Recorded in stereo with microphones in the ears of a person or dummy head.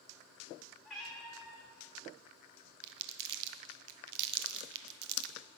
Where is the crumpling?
60° right (ahead or behind), 0.8 m.